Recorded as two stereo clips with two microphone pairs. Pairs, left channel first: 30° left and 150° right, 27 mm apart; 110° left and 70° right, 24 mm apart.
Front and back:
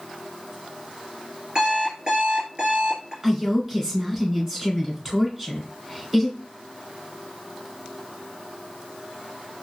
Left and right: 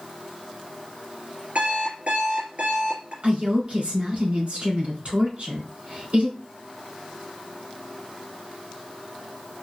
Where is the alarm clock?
100° right, 2.5 m.